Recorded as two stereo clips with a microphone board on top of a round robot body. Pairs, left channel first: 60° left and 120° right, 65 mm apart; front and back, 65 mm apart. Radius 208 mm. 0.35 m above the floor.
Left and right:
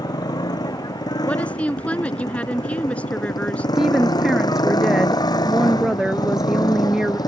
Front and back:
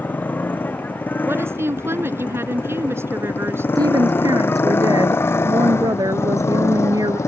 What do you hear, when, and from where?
0.0 s a motorcycle: 65° left; by 7.3 s 45° left
1.2 s a woman speaking: 130° left
3.8 s a woman speaking: 155° left